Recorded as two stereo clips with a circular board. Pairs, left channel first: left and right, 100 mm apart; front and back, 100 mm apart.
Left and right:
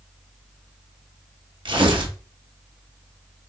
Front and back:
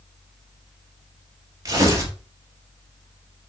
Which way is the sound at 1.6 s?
125° right.